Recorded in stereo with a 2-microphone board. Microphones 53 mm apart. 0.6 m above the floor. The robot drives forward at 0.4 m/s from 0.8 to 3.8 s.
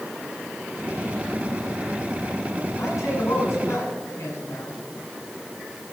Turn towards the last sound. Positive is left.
turn(degrees=70)  # may be behind; listen again after turning